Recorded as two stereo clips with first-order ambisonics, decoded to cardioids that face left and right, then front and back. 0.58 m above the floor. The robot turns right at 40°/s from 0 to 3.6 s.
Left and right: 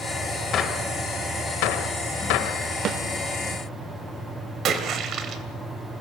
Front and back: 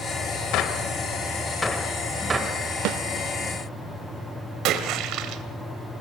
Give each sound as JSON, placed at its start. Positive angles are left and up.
{"t": 0.5, "sound": "a gunshot", "azimuth_deg": 35, "distance_m": 1.5}
{"t": 2.9, "sound": "a snare drum", "azimuth_deg": -145, "distance_m": 0.6}
{"t": 4.7, "sound": "a splash", "azimuth_deg": -145, "distance_m": 2.5}